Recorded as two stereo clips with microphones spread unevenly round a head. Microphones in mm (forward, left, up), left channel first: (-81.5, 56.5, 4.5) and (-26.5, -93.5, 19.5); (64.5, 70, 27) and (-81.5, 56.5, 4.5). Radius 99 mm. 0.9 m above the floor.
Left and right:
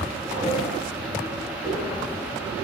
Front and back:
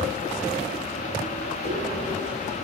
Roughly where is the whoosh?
Ahead left.